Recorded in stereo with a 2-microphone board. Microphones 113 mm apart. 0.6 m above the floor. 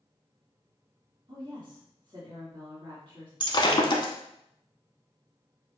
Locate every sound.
1.3 s a woman speaking: 45° right (ahead or behind), 1.5 m
3.4 s breaking glass: 45° left (ahead or behind), 0.8 m